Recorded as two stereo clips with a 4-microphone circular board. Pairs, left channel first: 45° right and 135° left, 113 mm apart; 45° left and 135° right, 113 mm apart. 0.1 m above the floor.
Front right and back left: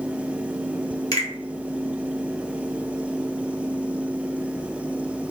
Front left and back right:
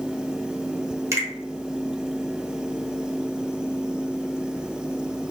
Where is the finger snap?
85° right, 1.7 m.